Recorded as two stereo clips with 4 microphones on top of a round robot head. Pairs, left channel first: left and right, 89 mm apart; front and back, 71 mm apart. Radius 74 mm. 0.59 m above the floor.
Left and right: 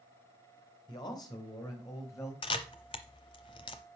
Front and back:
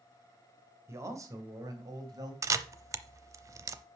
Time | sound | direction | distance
0.9 | a man speaking | 130° left | 2 m
2.4 | a camera shutter | 140° left | 0.6 m